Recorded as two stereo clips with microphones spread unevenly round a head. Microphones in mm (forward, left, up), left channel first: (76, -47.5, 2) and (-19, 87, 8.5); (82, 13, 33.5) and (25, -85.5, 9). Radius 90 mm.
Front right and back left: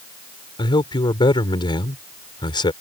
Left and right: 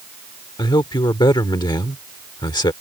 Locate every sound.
0.6 s a man speaking: 5° left